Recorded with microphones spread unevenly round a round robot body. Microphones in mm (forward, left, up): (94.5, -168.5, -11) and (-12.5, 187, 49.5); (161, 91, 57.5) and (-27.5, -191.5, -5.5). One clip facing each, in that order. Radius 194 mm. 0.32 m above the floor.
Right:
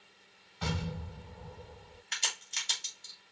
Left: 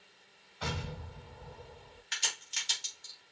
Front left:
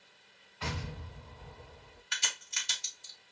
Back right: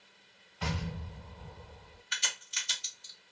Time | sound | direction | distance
0.6 | an explosion | 110° right | 1.4 m
2.1 | a crack | 35° left | 1.6 m